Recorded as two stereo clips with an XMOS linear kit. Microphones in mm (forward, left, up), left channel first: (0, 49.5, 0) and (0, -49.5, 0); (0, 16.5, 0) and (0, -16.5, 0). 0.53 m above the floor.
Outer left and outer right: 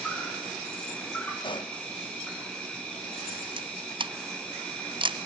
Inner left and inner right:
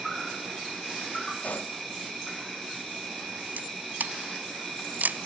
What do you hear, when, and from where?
0.0 s an insect: 10° left (ahead or behind), 5.5 m
1.4 s a pop: 55° left (ahead or behind), 0.6 m
3.6 s a camera shutter: 55° right (ahead or behind), 0.9 m